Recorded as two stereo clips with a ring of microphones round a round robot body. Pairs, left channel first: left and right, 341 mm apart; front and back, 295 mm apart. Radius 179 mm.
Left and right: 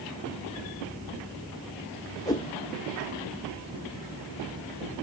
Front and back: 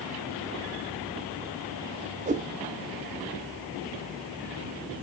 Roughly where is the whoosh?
Behind left.